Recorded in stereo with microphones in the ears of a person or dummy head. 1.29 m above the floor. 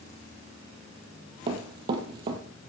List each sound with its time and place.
1.5 s running footsteps: 35° right (ahead or behind), 1.5 m